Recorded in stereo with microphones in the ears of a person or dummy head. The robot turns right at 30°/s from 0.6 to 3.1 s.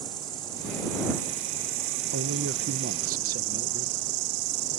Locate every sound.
0.0 s an insect: 150° right; by 4.8 s 75° right
2.1 s a man speaking: 80° right; by 4.0 s 50° right (ahead or behind)